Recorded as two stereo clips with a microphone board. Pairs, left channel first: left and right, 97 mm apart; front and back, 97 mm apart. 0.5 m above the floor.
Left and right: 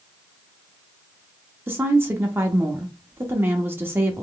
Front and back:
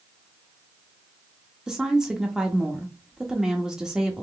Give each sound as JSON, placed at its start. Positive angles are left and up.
{"t": 1.7, "sound": "a woman speaking", "azimuth_deg": -105, "distance_m": 0.7}